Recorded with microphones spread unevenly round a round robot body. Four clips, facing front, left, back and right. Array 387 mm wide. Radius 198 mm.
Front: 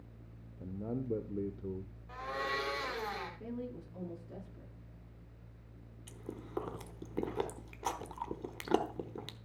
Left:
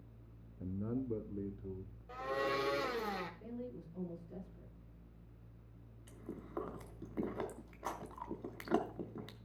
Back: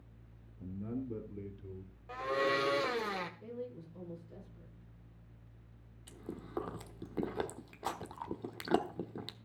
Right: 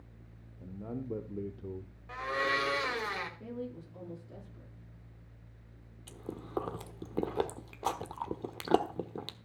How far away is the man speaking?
About 0.9 m.